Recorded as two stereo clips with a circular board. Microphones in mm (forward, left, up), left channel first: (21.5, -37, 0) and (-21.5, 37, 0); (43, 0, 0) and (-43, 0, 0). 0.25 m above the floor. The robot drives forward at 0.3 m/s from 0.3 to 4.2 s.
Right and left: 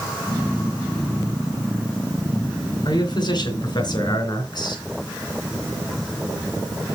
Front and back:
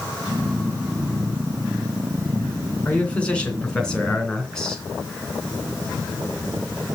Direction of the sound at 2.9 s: 70° right.